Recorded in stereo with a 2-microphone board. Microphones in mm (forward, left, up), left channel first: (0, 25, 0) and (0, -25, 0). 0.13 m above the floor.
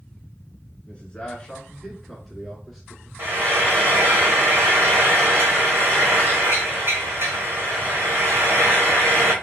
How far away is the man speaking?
About 1.8 m.